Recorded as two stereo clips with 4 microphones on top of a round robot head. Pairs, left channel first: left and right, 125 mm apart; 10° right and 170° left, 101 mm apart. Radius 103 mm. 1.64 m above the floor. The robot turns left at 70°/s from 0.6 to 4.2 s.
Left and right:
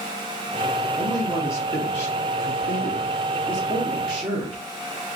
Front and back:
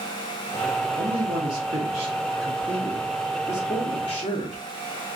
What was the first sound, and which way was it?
A man speaking, 175° right.